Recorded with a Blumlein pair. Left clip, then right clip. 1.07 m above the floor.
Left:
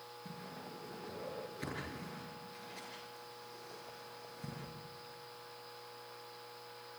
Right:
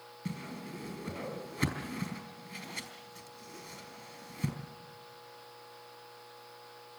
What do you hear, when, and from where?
0.2 s a whoosh: 60° right, 4.5 m